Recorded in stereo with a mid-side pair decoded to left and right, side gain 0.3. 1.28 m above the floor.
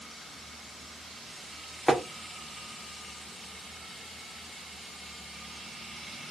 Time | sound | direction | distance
1.9 | tapping | straight ahead | 0.9 m